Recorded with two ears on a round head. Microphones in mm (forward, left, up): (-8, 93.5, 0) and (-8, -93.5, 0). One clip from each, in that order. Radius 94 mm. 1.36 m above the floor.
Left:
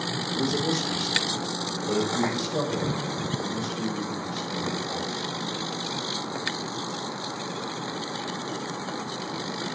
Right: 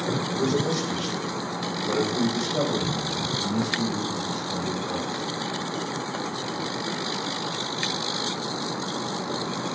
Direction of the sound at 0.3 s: 70° left (ahead or behind).